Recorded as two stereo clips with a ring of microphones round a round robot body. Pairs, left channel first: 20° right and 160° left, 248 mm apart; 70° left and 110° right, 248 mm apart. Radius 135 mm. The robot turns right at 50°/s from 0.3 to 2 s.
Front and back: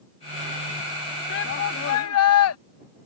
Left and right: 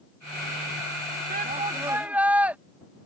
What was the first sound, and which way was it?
A shout, 65° right.